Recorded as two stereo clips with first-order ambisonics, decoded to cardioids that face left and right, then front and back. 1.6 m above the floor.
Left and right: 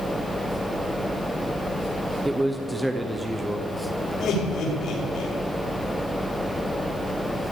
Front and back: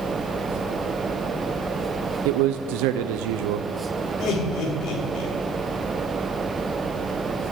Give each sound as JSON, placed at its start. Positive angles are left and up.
{"t": 2.2, "sound": "a man speaking", "azimuth_deg": -175, "distance_m": 0.7}
{"t": 4.2, "sound": "laughter", "azimuth_deg": 40, "distance_m": 5.0}